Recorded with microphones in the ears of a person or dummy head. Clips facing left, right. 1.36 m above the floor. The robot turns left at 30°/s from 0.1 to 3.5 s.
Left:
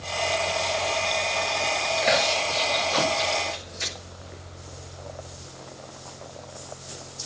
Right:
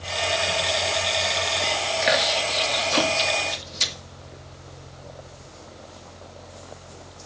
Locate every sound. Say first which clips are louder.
2.0 s chewing: even; 10° right (ahead or behind), 2 m; by 3.9 s 55° right (ahead or behind), 2 m